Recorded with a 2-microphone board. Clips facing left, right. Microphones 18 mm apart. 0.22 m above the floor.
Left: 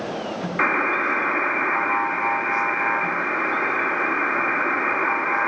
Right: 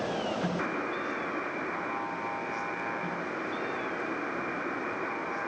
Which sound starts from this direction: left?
A buzzer, at 0.6 s.